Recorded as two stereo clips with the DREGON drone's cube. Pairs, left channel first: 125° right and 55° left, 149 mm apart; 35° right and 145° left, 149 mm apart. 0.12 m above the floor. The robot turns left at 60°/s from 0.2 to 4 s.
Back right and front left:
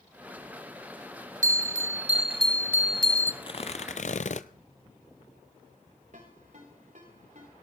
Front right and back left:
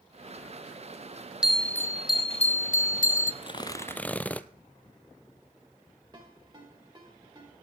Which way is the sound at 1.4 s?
60° left.